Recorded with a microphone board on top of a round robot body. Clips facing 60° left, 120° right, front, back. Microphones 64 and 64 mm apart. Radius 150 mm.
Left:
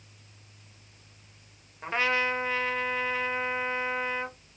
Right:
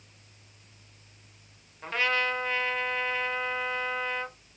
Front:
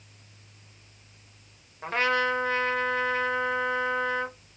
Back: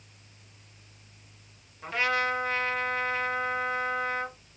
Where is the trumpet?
Straight ahead, 1.3 m.